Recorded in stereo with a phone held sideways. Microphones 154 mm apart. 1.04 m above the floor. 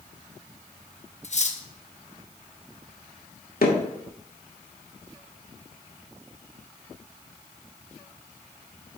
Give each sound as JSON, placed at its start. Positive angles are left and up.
{"t": 1.2, "sound": "cutlery clinking", "side_deg": 50, "distance_m": 0.8}
{"t": 3.6, "sound": "hammering", "side_deg": 80, "distance_m": 1.6}